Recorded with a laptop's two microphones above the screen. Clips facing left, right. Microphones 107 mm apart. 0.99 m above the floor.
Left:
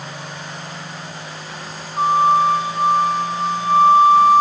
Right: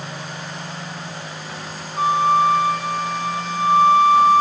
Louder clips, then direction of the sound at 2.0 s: Left 2 dB; 30° left (ahead or behind).